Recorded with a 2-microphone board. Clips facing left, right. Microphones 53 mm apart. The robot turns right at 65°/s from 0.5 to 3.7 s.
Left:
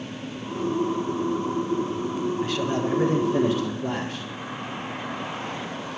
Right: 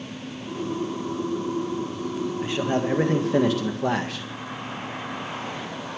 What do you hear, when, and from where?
2.4 s a man speaking: 165° right, 1.7 m; by 4.3 s 80° right, 1.7 m